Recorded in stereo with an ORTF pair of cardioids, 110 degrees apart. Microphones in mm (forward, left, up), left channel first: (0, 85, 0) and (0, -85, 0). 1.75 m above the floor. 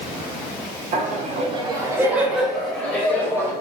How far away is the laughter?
About 0.7 m.